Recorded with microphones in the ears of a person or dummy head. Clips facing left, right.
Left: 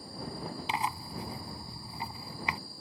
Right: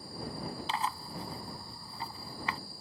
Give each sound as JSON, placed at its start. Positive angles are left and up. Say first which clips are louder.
{"t": 0.7, "sound": "tearing paper", "louder": "left 2 dB", "side_deg": 15}